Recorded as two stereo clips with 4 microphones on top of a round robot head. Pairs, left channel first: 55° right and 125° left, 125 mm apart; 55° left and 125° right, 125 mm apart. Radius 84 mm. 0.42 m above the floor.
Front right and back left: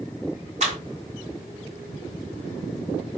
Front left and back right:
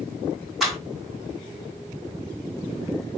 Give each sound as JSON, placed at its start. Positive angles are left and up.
{"t": 0.6, "sound": "a clap", "azimuth_deg": 145, "distance_m": 2.5}